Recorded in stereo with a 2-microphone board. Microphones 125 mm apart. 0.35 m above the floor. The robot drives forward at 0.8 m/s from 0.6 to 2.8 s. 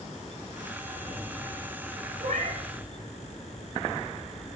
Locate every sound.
2.2 s a cat meowing: 65° right (ahead or behind), 7 m